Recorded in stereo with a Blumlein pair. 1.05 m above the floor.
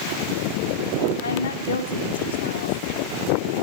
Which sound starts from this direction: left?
A woman speaking, at 1.2 s.